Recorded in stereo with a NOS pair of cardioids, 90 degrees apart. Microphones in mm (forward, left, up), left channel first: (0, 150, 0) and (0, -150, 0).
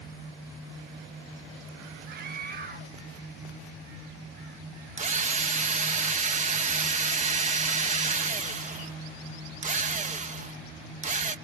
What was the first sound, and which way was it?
A scream, 35° right.